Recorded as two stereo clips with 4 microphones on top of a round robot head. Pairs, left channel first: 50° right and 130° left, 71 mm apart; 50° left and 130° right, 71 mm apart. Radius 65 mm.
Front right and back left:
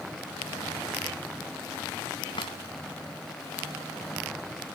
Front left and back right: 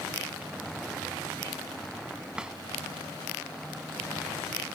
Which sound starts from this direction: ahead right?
A drawer, at 2.4 s.